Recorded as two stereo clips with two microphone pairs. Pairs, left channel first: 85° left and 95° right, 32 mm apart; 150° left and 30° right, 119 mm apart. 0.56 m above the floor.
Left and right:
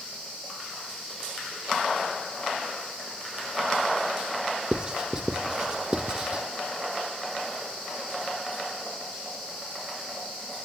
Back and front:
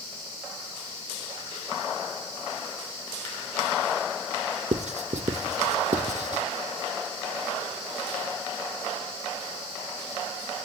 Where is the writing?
35° right, 0.9 m.